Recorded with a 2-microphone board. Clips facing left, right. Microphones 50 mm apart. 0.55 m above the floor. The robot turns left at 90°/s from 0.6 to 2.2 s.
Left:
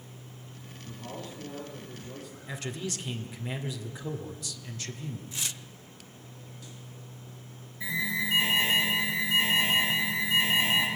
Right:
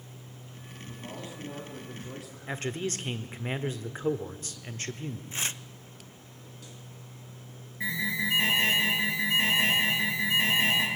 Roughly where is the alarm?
Right.